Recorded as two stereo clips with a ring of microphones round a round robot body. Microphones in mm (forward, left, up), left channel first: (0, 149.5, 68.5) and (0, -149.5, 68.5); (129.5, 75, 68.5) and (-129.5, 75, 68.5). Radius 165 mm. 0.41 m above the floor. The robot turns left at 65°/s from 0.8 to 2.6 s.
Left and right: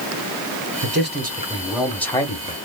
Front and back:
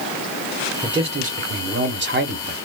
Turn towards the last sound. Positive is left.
turn(degrees=135)